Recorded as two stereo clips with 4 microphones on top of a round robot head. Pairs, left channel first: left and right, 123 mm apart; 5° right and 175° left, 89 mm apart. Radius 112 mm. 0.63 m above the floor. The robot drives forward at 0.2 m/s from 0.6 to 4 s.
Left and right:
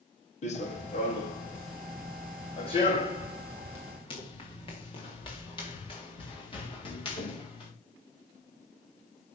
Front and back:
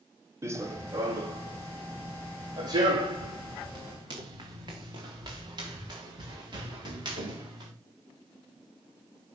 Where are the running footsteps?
115° left, 1.7 m; by 7.7 s 135° left, 6.5 m.